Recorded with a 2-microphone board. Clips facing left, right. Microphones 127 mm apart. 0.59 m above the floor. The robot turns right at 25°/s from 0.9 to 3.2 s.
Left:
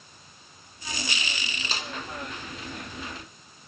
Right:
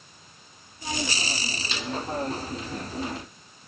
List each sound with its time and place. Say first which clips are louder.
1.7 s a snare drum: left 1 dB; 40° left (ahead or behind), 0.7 m; by 1.9 s 35° left (ahead or behind), 0.7 m